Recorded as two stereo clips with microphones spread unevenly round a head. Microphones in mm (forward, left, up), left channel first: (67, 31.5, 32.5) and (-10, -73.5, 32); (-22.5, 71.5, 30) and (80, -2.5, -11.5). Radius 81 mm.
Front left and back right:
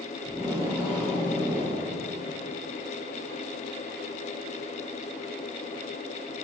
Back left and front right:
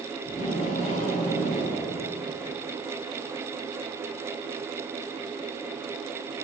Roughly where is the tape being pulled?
Behind left.